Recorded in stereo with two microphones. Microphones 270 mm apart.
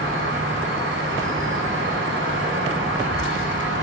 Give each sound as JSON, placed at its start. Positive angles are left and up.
{"t": 0.0, "sound": "an insect", "side_deg": -45, "distance_m": 0.9}